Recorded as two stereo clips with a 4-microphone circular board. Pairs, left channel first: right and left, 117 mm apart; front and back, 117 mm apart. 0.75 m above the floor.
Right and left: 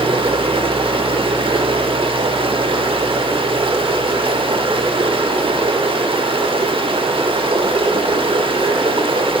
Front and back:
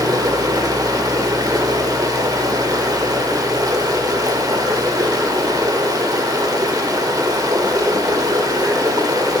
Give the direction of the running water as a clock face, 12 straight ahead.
8 o'clock.